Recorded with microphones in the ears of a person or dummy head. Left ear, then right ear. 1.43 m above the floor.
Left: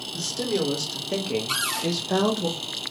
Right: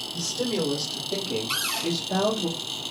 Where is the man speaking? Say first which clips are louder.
Left 2 dB; 35° left (ahead or behind), 1.2 m; by 2.5 s 40° left (ahead or behind), 0.7 m.